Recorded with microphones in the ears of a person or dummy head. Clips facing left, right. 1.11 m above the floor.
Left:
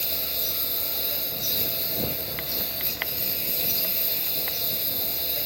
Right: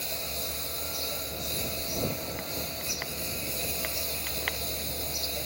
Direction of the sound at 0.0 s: 10° left (ahead or behind).